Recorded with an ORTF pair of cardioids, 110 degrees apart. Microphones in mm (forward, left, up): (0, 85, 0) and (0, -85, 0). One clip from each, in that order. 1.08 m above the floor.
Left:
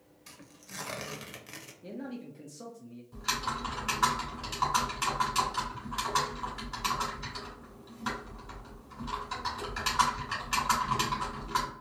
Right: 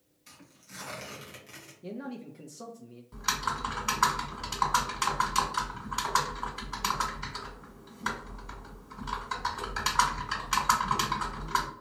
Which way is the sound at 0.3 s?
30° left.